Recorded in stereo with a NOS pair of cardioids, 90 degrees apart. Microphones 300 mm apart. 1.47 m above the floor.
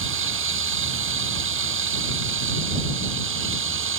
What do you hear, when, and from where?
0.0 s running water: 40° right